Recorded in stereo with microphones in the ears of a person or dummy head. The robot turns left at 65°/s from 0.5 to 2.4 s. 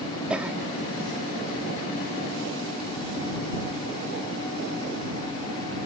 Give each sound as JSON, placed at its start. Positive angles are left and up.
{"t": 0.3, "sound": "a cough", "side_deg": -10}